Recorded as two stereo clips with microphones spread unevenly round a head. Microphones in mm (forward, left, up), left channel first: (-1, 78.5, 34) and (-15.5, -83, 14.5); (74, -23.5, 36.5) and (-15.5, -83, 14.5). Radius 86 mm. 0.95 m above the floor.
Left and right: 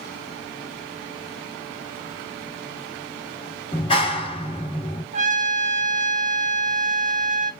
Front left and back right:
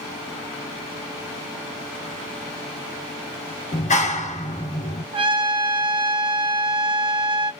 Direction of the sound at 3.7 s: 25° left.